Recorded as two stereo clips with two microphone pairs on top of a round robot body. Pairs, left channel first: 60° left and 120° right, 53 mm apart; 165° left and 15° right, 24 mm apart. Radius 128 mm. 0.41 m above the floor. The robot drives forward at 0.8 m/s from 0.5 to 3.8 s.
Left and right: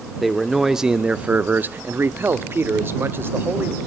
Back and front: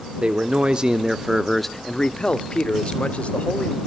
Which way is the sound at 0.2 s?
40° right.